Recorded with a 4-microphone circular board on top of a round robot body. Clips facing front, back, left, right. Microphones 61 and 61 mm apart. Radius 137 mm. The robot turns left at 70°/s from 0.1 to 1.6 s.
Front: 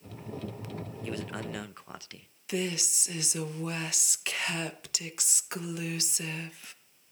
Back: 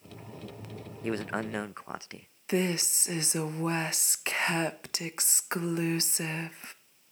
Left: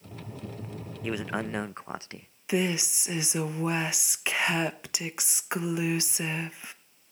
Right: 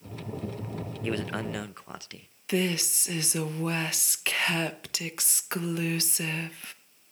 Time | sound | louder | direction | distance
1.0 | a man speaking | back 6 dB, even | 175° left | 0.6 m
2.5 | a woman speaking | back 4 dB, even | 155° left | 1.1 m